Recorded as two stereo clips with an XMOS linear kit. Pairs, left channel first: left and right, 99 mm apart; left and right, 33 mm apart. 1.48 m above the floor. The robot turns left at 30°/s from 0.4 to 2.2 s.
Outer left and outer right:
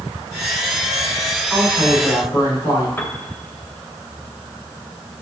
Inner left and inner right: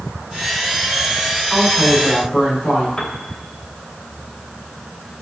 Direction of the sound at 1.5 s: 15° left (ahead or behind).